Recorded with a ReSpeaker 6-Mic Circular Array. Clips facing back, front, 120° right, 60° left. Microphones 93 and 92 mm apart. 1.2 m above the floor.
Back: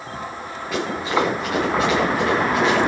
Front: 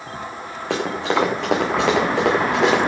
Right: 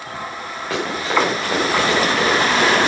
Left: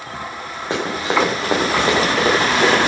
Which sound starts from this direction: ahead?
Running footsteps, at 0.7 s.